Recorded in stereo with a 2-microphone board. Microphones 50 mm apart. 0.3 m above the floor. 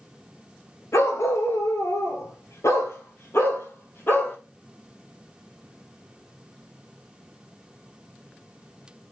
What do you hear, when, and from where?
0.9 s a dog barking: 70° left (ahead or behind), 1.8 m; by 4.4 s 45° left (ahead or behind), 3 m